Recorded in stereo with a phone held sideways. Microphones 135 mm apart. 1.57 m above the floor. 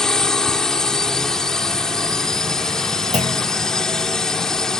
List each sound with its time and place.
0.0 s a drone: 5° left (ahead or behind)
3.1 s a clunk: 65° right (ahead or behind)